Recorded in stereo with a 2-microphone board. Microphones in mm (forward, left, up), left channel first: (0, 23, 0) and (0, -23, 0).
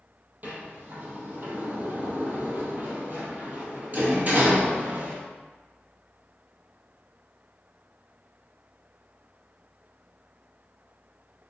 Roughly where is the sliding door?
Right.